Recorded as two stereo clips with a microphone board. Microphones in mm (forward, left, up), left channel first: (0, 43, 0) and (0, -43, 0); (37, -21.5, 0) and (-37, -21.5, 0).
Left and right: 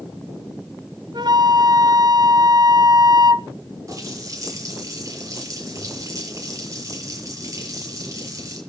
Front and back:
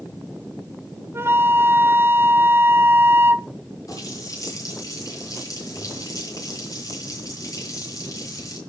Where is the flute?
120° right, 0.8 m.